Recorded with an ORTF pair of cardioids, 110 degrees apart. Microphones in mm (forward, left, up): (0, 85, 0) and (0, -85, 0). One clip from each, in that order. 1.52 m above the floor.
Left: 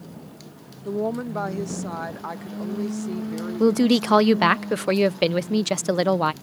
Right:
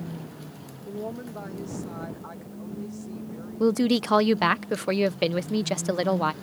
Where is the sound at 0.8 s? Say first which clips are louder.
Left 9 dB; 55° left.